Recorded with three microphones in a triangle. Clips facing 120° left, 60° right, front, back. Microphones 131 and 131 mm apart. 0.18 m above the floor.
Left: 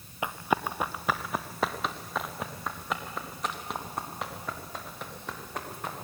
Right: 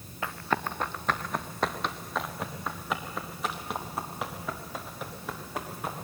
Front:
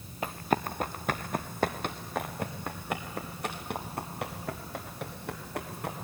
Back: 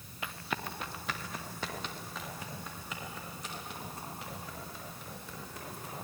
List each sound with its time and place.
0.2 s running footsteps: 45° left, 1.0 m; by 6.0 s 25° left, 5 m